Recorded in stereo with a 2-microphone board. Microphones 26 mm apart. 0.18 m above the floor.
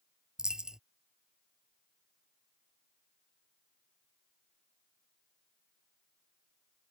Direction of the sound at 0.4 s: 30° right (ahead or behind).